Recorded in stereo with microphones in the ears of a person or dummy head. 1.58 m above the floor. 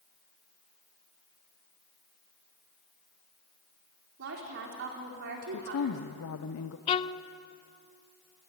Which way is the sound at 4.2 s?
60° right (ahead or behind).